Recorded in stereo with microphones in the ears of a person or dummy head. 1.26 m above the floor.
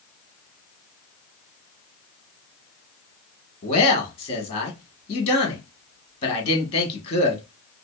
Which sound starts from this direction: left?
A man speaking, at 3.6 s.